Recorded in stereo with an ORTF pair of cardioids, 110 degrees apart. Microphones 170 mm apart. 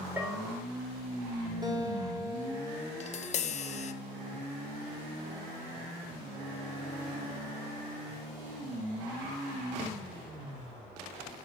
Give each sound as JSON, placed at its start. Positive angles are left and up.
{"t": 0.2, "sound": "a bell", "azimuth_deg": -10, "distance_m": 4.5}
{"t": 1.6, "sound": "a guitar", "azimuth_deg": -25, "distance_m": 5.5}
{"t": 3.0, "sound": "tapping", "azimuth_deg": 40, "distance_m": 1.1}